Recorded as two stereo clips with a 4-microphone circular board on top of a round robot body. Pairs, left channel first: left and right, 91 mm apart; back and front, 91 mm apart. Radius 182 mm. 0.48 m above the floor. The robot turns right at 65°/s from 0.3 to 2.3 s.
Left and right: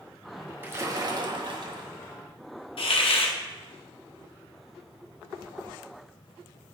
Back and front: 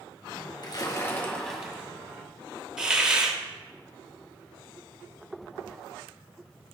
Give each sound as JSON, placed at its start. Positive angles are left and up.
{"t": 0.6, "sound": "a splash", "azimuth_deg": -155, "distance_m": 1.9}
{"t": 2.8, "sound": "a hiss", "azimuth_deg": 80, "distance_m": 1.1}